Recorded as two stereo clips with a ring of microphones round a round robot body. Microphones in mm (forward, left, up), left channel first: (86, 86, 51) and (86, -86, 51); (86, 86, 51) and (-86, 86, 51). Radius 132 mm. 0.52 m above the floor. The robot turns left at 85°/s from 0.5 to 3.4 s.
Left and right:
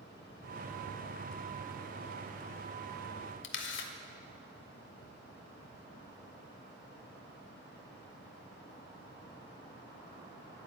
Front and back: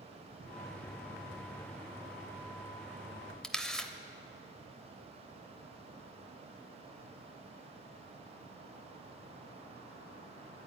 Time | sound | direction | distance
3.4 | a camera shutter | 85° left | 0.8 m